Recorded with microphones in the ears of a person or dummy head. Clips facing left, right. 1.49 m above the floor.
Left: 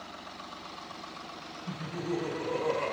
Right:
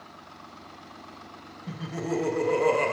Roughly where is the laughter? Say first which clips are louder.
Right 3 dB; right.